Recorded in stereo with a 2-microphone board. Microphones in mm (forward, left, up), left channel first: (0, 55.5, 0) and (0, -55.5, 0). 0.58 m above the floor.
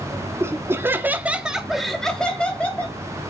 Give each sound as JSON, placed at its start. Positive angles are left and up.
{"t": 0.4, "sound": "laughter", "side_deg": -25, "distance_m": 1.1}